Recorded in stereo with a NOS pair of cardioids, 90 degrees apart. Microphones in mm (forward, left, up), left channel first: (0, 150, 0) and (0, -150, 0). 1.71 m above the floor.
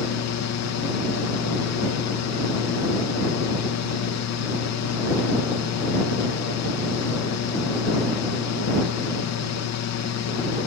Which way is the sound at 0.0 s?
60° left.